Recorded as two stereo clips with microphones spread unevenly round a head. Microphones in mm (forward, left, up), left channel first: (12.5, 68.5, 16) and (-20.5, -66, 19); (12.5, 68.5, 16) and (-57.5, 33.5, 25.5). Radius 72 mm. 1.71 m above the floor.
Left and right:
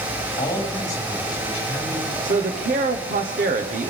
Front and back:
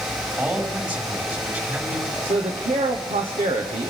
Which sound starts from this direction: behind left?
A man speaking, at 0.4 s.